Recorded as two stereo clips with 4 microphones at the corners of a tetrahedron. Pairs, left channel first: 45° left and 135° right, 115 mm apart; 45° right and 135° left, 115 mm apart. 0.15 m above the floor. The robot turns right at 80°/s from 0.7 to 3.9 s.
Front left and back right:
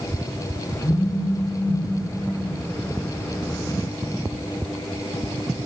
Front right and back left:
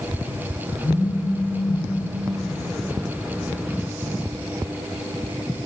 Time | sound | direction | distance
0.8 | a phone buzzing | 5° right | 2.5 m